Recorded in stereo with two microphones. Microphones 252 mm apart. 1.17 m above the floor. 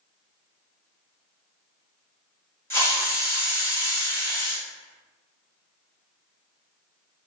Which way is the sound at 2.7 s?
10° left (ahead or behind).